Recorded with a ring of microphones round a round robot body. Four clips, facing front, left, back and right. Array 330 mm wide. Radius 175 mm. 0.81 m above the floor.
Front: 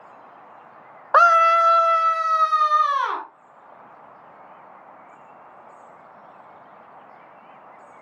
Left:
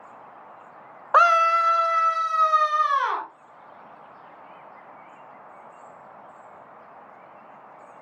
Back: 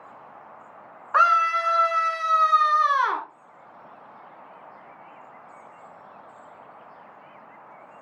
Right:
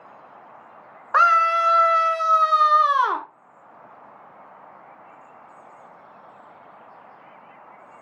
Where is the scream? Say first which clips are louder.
Even, front 5 dB; 25° left, 0.8 m; by 3.3 s 100° right, 1.8 m.